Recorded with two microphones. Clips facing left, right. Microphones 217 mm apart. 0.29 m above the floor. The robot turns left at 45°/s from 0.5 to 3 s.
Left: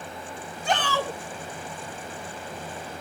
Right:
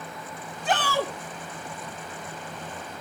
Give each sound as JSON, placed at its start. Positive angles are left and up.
{"t": 0.7, "sound": "a shout", "side_deg": 0, "distance_m": 3.0}